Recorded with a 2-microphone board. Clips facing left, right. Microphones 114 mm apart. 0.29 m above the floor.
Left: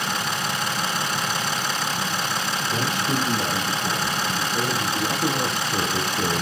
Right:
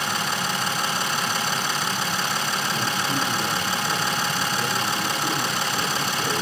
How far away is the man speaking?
About 8 m.